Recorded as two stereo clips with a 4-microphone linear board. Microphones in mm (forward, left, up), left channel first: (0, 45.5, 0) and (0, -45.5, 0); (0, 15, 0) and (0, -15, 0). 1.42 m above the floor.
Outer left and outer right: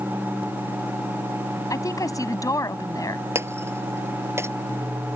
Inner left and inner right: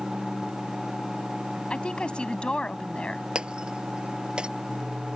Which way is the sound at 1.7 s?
40° left (ahead or behind).